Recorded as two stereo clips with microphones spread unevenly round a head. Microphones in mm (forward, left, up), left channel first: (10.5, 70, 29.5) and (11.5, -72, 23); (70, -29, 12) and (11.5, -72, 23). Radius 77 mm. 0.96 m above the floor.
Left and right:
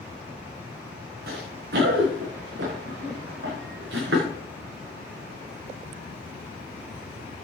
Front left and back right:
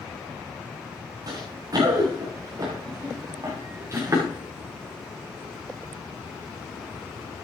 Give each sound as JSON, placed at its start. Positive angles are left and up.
{"t": 1.3, "sound": "running footsteps", "azimuth_deg": -115, "distance_m": 6.0}